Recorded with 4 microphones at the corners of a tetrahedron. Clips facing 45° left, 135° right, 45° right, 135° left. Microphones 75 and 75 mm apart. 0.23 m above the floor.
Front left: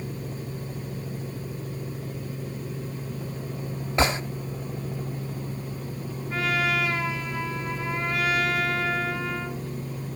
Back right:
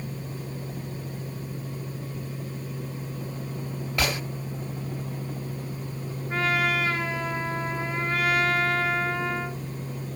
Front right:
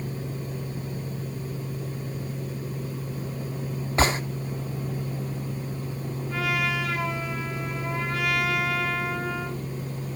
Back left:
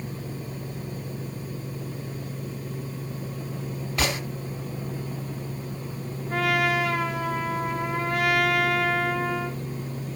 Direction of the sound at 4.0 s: 5° right.